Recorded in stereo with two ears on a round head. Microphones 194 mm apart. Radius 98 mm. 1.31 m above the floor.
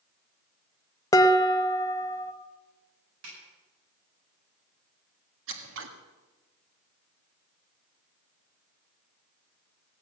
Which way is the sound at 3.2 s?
65° right (ahead or behind).